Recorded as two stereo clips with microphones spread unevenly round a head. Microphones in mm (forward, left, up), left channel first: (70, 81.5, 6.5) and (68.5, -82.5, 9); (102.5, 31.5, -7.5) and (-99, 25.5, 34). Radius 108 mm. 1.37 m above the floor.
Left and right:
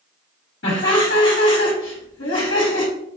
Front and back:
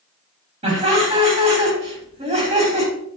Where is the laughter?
130° left, 3 m.